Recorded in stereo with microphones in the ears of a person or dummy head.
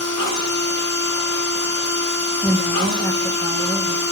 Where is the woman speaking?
10° left (ahead or behind), 0.7 m.